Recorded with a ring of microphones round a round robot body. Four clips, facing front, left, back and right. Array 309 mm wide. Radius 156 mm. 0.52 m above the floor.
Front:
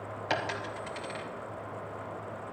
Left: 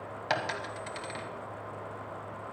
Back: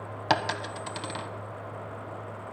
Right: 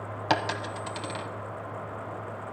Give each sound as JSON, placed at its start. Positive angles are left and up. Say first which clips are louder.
{"t": 0.3, "sound": "a dropped coin", "louder": "right 5 dB, back 6 dB", "azimuth_deg": -150, "distance_m": 0.8}